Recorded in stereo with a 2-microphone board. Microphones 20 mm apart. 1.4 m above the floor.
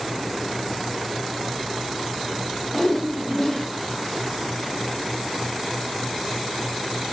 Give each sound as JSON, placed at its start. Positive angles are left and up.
{"t": 2.7, "sound": "a whoosh", "side_deg": 15, "distance_m": 0.7}